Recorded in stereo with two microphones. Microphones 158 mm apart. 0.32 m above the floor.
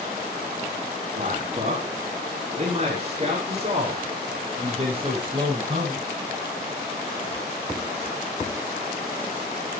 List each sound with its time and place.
1.1 s a man speaking: 50° right (ahead or behind), 4.5 m; by 6.0 s 30° right (ahead or behind), 10.5 m